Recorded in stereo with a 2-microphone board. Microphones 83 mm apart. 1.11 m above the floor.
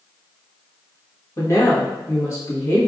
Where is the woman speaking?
35° left (ahead or behind), 1.4 m.